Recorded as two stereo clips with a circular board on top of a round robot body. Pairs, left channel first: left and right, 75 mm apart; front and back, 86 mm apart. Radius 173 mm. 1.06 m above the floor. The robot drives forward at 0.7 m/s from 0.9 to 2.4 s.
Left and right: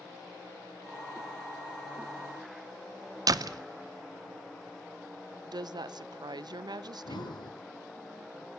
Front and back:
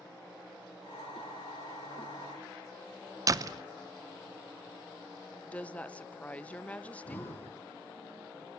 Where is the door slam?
130° right, 0.6 m.